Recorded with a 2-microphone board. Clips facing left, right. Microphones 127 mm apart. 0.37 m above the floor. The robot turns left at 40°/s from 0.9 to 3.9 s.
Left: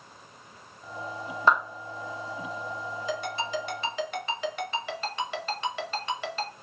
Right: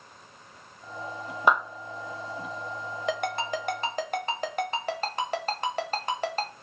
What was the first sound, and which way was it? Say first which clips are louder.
A clap: even; 15° right (ahead or behind).